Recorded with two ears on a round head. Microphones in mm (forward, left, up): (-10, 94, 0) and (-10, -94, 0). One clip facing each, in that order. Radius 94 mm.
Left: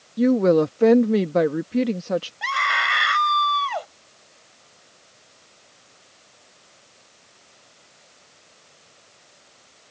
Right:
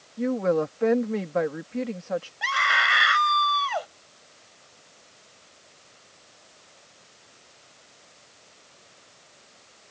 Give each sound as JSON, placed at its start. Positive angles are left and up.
{"t": 0.2, "sound": "a woman speaking", "side_deg": 45}
{"t": 2.4, "sound": "a scream", "side_deg": -5}